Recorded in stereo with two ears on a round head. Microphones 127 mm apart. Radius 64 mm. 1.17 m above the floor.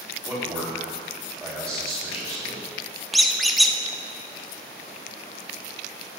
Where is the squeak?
Centre (ahead or behind), 0.5 m.